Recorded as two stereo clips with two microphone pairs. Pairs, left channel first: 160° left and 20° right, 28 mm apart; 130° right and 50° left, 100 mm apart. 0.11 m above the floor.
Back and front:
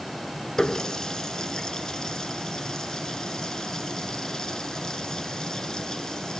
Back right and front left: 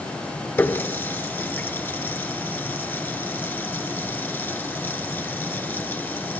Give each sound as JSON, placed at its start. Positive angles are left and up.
{"t": 0.6, "sound": "a running tap", "azimuth_deg": -170, "distance_m": 0.8}